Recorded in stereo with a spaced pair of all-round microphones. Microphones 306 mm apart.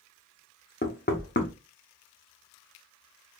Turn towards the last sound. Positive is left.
turn(degrees=35)  # may be behind; listen again after turning